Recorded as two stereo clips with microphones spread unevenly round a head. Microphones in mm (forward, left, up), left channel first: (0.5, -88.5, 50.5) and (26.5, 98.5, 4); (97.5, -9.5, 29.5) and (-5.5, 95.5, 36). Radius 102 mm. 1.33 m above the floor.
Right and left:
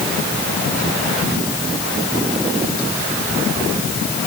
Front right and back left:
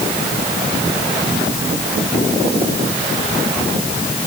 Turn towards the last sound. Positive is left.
No sound to turn to.